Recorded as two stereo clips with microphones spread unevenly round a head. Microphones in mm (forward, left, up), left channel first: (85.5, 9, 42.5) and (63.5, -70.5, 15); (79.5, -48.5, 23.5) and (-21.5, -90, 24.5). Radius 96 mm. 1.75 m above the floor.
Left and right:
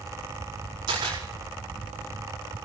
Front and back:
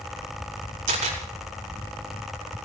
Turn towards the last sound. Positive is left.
turn(degrees=-165)